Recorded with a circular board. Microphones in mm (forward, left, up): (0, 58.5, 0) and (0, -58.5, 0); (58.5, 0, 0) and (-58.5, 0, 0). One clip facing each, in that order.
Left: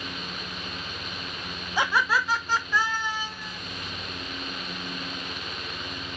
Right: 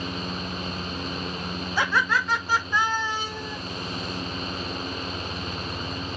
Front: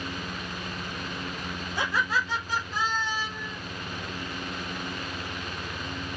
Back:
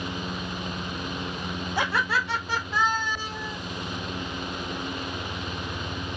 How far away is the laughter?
About 1.6 m.